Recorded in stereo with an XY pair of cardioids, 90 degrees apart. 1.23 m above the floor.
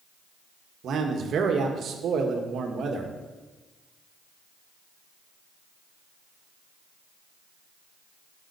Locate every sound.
0.8 s a man speaking: 70° right, 1.6 m